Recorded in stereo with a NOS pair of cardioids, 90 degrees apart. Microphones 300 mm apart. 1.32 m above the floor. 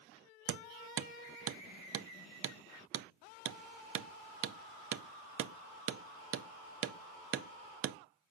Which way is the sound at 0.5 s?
50° right.